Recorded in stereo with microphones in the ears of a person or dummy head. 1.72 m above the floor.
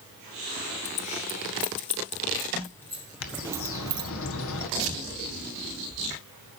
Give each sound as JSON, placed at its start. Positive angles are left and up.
{"t": 0.8, "sound": "keys jangling", "side_deg": 35, "distance_m": 1.4}
{"t": 3.2, "sound": "a bird", "side_deg": 75, "distance_m": 1.7}
{"t": 4.8, "sound": "tearing paper", "side_deg": -75, "distance_m": 2.0}